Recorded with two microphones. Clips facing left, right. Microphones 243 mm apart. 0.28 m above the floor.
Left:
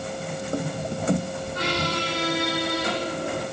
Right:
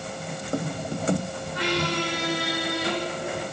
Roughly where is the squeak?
Left.